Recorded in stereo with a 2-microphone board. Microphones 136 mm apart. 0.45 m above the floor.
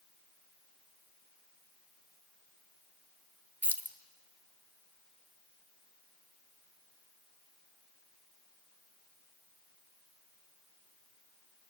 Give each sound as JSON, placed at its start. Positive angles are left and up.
{"t": 3.6, "sound": "keys jangling", "side_deg": -15, "distance_m": 1.0}